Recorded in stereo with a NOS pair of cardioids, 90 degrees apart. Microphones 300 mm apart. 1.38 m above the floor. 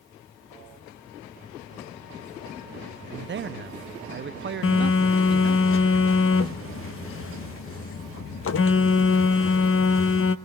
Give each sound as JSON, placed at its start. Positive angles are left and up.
{"t": 3.1, "sound": "a man speaking", "azimuth_deg": -35, "distance_m": 0.7}
{"t": 4.6, "sound": "a phone buzzing", "azimuth_deg": 45, "distance_m": 1.1}